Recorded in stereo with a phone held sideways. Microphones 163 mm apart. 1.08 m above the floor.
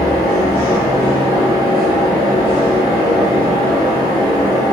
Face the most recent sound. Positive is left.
turn(degrees=20)  # may be behind; listen again after turning